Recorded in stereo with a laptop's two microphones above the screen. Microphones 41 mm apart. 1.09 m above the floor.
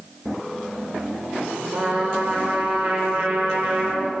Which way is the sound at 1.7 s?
35° right (ahead or behind).